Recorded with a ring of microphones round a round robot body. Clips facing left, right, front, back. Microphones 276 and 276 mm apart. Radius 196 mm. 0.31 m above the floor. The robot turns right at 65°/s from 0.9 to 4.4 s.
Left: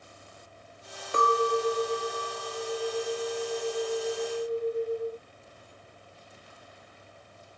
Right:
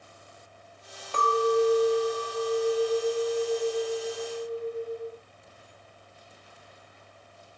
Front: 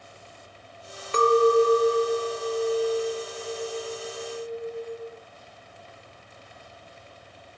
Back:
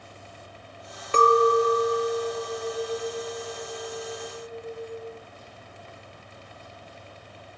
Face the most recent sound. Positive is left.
turn(degrees=20)